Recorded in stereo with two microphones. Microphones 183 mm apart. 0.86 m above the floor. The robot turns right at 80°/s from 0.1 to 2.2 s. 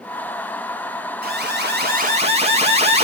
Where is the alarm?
115° right, 8.5 m; by 3.0 s 40° right, 8.5 m.